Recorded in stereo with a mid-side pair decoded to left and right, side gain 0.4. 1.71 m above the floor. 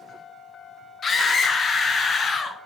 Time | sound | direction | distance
1.0 | a scream | 50° left | 1.9 m